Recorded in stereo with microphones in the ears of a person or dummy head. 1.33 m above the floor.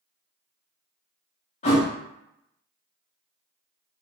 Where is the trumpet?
I don't hear a trumpet.